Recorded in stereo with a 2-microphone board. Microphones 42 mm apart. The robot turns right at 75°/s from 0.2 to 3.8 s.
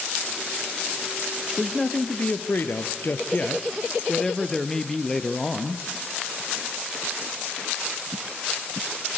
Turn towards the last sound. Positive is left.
turn(degrees=170)